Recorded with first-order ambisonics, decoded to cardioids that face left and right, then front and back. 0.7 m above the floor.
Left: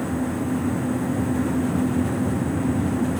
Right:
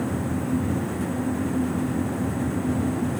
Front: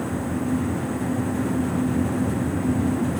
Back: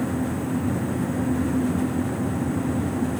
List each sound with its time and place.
Only background noise.